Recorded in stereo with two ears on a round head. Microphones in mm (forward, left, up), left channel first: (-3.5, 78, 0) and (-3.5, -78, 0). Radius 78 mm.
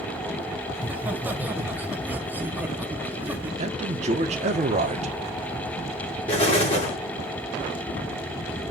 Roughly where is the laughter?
Centre.